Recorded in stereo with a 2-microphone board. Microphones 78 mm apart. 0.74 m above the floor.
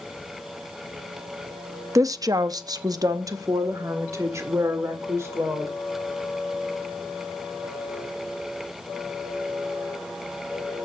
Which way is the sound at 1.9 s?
45° right (ahead or behind).